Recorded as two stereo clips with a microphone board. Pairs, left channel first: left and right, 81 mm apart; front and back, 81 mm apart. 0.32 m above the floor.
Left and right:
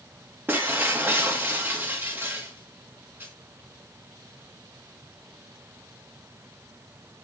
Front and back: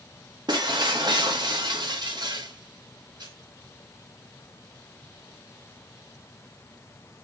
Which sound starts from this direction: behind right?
Breaking glass, at 0.5 s.